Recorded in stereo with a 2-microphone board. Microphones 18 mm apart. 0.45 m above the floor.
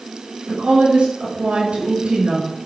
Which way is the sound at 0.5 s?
75° right (ahead or behind).